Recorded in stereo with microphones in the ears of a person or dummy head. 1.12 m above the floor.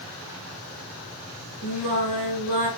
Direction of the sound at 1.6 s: 80° right.